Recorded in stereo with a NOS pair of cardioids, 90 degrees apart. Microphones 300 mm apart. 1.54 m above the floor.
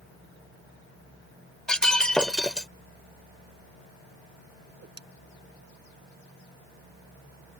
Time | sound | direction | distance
1.7 | breaking glass | straight ahead | ?
4.7 | a whoosh | 35° right | ?